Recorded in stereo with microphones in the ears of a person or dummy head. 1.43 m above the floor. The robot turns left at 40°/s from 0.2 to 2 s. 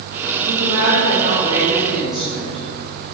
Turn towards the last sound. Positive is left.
turn(degrees=180)